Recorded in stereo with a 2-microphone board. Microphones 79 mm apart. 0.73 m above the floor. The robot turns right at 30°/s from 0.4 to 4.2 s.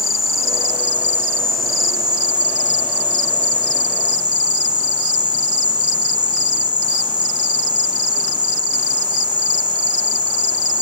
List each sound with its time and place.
0.0 s an insect: 175° right, 3 m; by 10.8 s 65° right, 3 m